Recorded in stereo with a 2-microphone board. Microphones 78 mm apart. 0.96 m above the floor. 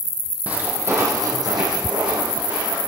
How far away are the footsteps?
About 2 m.